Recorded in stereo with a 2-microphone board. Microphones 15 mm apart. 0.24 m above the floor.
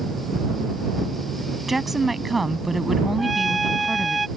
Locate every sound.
1.7 s a woman speaking: 10° right (ahead or behind)
3.2 s a trumpet: 5° left (ahead or behind)